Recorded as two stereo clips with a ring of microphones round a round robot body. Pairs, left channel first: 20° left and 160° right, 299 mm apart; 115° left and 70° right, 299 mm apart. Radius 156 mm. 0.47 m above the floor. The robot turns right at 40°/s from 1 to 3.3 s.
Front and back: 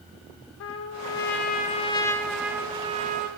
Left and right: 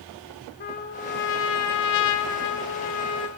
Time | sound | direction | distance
0.6 | a trumpet | 60° left | 0.6 m